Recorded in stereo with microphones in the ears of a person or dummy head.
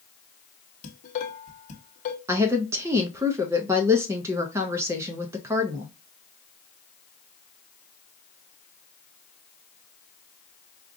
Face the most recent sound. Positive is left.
turn(degrees=-15)  # may be behind; listen again after turning